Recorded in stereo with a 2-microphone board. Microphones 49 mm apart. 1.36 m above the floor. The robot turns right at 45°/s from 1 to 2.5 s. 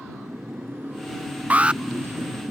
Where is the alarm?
30° right (ahead or behind); by 1.8 s 15° right (ahead or behind).